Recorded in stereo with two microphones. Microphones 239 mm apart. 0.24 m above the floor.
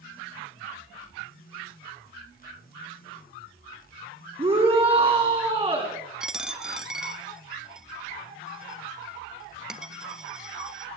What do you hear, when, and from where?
4.4 s a shout: 25° right (ahead or behind), 2.5 m
6.2 s a dropped coin: 5° right (ahead or behind), 1.1 m